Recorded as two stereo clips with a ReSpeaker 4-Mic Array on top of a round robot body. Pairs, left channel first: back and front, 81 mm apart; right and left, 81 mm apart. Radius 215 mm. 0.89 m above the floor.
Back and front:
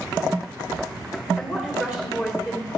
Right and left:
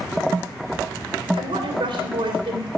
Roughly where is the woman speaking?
Left.